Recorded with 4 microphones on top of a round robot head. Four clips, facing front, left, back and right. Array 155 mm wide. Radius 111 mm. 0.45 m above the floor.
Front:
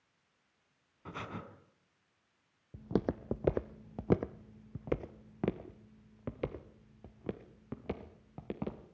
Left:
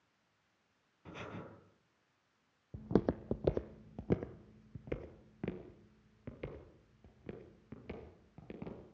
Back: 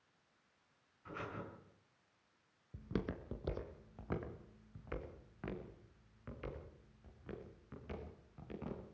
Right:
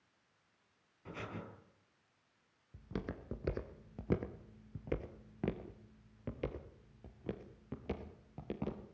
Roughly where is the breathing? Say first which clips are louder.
Right 1 dB, front 3 dB; ahead.